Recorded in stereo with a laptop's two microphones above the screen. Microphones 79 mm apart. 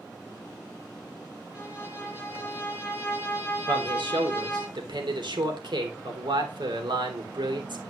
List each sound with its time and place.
1.5 s a violin: 20° right (ahead or behind), 7 m
3.7 s a man speaking: 80° right, 3 m